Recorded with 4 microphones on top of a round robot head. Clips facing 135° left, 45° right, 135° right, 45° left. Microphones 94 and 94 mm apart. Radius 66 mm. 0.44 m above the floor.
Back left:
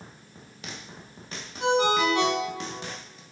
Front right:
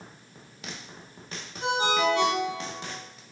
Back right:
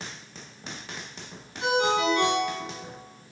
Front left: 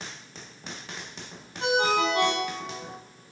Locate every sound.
1.6 s a ringtone: 100° left, 1.5 m